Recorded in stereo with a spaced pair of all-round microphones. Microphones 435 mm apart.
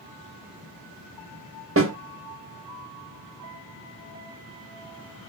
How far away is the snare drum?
About 0.7 m.